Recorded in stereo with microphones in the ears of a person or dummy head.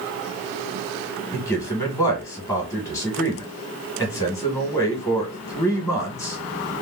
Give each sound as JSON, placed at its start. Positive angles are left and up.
{"t": 1.3, "sound": "a man speaking", "side_deg": 10, "distance_m": 1.4}